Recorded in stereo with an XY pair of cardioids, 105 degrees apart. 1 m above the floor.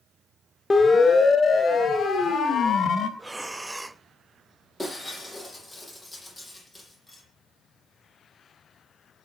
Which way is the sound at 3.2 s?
10° right.